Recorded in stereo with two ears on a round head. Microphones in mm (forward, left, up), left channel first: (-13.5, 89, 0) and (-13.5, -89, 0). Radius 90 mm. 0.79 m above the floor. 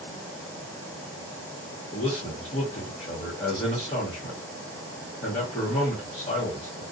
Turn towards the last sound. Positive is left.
turn(degrees=30)  # may be behind; listen again after turning